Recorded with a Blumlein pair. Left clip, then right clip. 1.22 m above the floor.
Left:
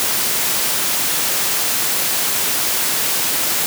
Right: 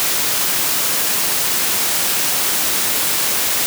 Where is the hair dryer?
I don't hear a hair dryer.